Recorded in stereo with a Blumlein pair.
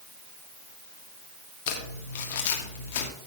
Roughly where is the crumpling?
Ahead left.